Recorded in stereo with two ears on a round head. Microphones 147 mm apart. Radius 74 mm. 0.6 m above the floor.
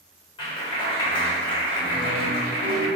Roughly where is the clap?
Left.